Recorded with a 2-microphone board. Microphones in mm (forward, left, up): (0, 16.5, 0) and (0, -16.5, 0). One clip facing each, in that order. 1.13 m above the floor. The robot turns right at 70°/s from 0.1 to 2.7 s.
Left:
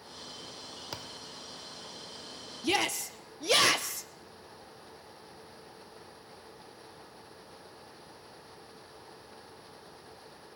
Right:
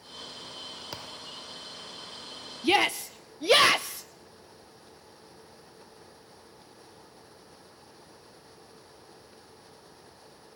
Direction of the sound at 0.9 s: 5° right (ahead or behind).